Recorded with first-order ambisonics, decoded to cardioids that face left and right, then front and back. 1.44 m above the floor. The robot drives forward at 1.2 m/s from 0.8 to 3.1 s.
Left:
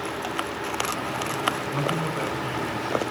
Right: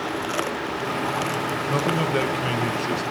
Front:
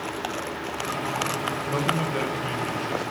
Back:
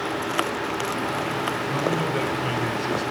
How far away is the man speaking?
About 2.0 m.